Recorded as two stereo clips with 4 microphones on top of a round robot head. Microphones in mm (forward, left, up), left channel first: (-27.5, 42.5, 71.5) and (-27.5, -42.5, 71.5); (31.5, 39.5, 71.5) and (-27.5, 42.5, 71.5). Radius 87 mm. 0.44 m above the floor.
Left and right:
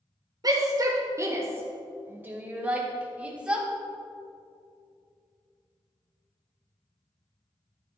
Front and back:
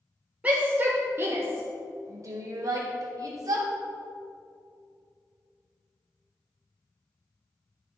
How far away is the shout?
About 1.3 m.